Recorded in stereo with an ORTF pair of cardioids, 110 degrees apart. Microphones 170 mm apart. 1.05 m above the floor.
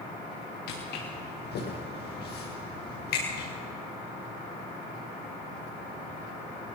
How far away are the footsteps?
About 9.5 m.